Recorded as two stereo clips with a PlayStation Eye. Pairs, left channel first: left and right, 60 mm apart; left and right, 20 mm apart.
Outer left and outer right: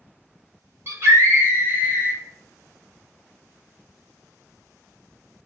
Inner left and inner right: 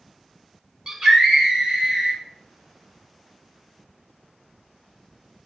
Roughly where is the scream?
Right.